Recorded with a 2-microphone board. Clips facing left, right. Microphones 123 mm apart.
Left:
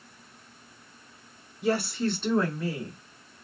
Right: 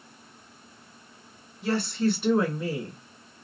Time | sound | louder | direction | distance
1.6 | a woman speaking | right 1 dB | 20° left (ahead or behind) | 1.1 m